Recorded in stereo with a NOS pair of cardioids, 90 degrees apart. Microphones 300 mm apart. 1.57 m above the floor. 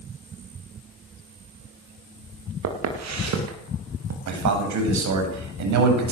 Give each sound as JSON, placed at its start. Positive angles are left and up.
{"t": 2.6, "sound": "footsteps", "azimuth_deg": -65, "distance_m": 8.0}
{"t": 4.3, "sound": "a man speaking", "azimuth_deg": -65, "distance_m": 9.0}